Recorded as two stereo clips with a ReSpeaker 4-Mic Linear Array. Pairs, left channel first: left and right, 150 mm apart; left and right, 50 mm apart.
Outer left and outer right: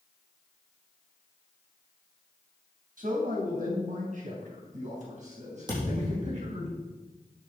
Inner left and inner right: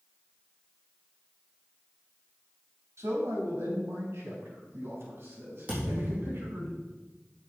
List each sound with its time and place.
3.0 s a man speaking: 65° right (ahead or behind), 3.5 m; by 6.7 s 50° right (ahead or behind), 5 m
5.7 s a thud: 30° right (ahead or behind), 5.5 m